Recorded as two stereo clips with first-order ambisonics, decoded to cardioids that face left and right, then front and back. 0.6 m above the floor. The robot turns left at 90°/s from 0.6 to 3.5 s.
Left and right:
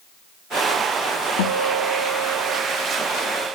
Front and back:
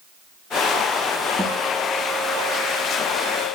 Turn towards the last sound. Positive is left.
turn(degrees=-95)